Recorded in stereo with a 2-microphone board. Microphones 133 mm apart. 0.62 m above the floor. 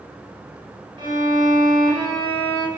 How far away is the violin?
About 4 m.